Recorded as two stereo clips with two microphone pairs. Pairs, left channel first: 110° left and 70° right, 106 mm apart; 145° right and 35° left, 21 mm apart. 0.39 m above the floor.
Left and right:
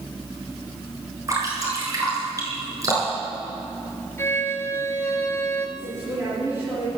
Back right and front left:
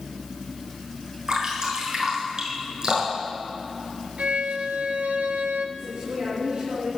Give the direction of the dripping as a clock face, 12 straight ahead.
1 o'clock.